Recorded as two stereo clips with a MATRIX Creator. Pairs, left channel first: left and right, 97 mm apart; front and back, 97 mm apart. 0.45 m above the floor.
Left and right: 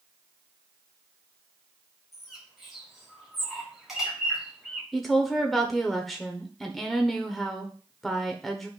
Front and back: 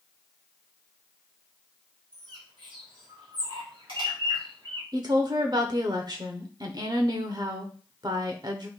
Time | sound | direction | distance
2.1 | a bird | straight behind | 3 m
4.9 | a woman speaking | 175° left | 1.1 m